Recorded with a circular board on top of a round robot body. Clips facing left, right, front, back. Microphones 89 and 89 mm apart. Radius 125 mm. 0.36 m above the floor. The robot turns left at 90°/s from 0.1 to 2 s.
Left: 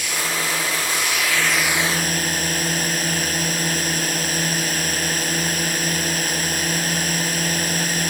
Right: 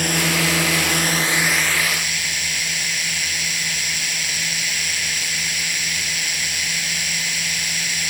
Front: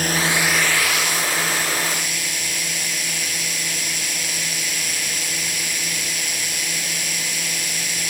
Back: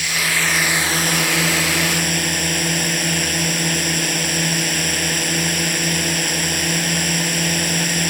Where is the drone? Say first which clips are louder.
Right 4 dB, front 2 dB; 50° right; by 8.1 s 140° left.